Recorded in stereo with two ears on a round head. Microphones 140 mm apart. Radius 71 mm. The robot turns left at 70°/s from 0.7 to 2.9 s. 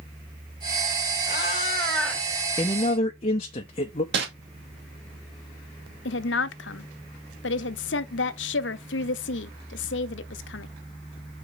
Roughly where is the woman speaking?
Left.